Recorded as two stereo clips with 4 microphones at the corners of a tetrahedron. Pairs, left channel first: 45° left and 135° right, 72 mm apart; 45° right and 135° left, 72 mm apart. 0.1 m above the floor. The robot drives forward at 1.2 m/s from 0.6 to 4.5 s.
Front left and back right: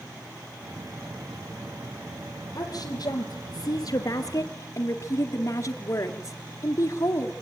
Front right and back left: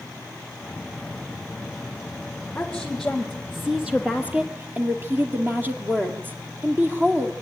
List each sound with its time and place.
2.5 s a woman speaking: 30° left, 3.5 m; by 7.3 s 80° left, 2 m